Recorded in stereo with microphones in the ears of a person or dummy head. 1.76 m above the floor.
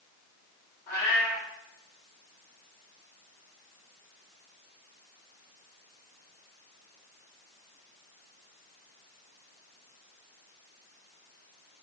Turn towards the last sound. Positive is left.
turn(degrees=10)  # may be behind; listen again after turning